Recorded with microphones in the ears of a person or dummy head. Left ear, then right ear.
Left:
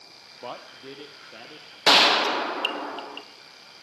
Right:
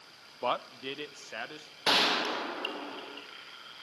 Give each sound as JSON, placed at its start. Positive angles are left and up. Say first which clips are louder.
{"t": 0.4, "sound": "a man speaking", "louder": "right 6 dB", "side_deg": -45, "distance_m": 0.6}
{"t": 1.9, "sound": "a gunshot", "louder": "left 9 dB", "side_deg": 30, "distance_m": 1.1}